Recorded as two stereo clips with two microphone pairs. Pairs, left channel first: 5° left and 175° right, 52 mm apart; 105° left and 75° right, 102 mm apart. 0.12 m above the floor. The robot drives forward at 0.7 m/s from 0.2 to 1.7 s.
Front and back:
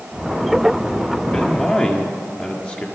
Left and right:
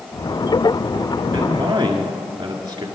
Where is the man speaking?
40° right, 2.0 m; by 2.9 s 45° right, 1.8 m.